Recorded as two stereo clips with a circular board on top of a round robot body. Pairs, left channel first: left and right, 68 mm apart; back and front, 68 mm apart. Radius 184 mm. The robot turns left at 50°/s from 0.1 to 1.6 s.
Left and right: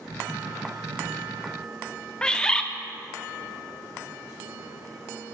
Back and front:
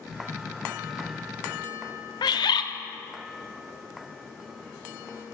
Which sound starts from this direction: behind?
A bird, at 2.2 s.